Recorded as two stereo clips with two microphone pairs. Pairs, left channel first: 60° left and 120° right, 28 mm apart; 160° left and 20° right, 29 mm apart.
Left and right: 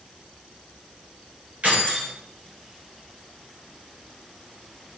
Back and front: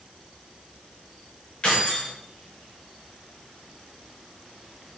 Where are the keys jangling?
145° right, 4.5 m.